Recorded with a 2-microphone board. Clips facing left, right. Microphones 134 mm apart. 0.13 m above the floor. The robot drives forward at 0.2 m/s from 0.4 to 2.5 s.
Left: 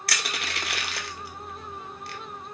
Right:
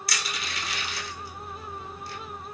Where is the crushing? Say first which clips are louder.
Left 2 dB; 65° left (ahead or behind), 0.6 m; by 2.2 s 70° left (ahead or behind), 0.5 m.